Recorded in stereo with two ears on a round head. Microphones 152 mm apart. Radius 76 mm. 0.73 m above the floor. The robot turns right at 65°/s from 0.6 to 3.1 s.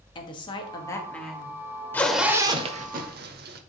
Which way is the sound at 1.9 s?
170° left.